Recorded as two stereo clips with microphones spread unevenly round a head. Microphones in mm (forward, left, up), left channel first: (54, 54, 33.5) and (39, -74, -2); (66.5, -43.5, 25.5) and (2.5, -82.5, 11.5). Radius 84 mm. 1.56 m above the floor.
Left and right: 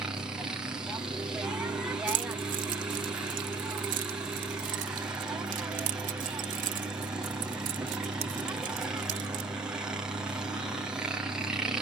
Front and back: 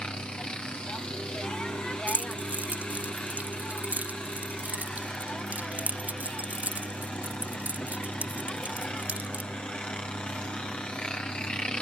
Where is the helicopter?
45° right.